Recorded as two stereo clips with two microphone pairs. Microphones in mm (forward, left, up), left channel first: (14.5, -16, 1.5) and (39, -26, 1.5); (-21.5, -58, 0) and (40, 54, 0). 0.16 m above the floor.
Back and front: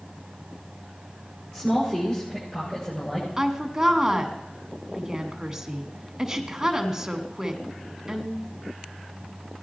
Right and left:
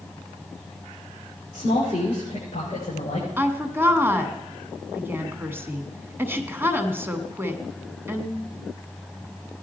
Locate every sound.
1.5 s a woman speaking: 160° right, 7 m; by 3.3 s 150° right, 7 m
3.4 s a woman speaking: 20° left, 1.1 m